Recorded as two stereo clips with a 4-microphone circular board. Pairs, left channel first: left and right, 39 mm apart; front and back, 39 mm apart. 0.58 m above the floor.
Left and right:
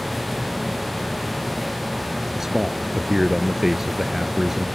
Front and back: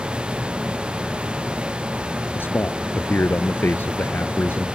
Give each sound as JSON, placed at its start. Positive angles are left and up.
{"t": 2.4, "sound": "a man speaking", "azimuth_deg": -10}